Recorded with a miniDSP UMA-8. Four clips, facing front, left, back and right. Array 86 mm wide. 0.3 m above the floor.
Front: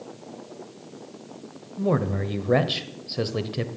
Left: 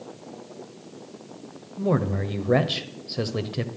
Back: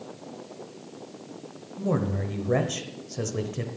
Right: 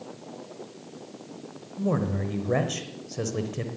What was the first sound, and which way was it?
A man speaking, 35° left.